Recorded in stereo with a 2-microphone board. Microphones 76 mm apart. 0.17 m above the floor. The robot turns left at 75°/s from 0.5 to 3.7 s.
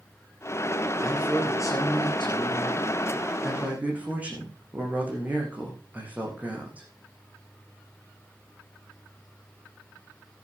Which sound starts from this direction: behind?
A man speaking, at 1.0 s.